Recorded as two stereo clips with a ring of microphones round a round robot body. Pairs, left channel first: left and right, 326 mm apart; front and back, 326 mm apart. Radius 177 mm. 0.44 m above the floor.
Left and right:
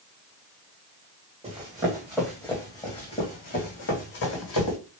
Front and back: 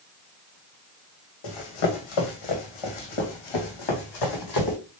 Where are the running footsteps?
15° right, 1.8 m; by 4.8 s 45° left, 2.0 m.